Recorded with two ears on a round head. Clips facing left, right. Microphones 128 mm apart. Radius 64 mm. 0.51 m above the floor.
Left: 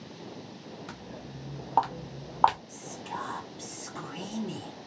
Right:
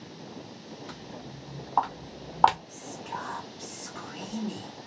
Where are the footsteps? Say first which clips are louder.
Right 1 dB; 70° left (ahead or behind), 1.5 m; by 2.6 s 30° right (ahead or behind), 0.7 m.